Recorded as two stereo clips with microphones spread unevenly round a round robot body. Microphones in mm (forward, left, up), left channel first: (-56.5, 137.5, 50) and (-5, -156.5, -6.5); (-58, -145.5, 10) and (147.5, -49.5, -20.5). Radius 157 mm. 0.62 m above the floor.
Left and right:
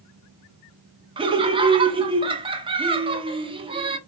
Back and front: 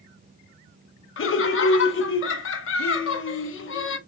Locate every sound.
1.2 s laughter: 135° right, 1.0 m